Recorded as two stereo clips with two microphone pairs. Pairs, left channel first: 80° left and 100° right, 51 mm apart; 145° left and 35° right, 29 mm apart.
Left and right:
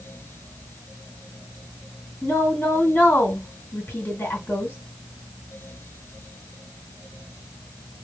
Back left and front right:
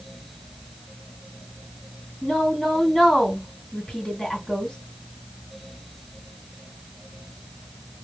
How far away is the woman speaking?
About 2 m.